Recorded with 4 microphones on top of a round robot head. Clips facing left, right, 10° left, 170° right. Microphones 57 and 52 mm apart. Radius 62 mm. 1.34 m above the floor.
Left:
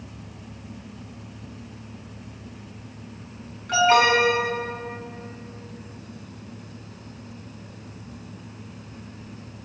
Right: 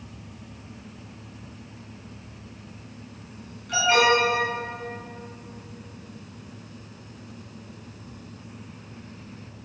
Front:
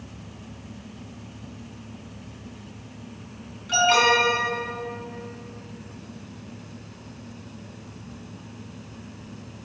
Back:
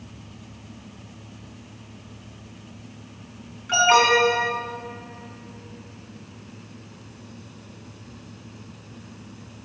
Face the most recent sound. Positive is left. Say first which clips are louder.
# left 2 dB, back 2 dB
turn(degrees=135)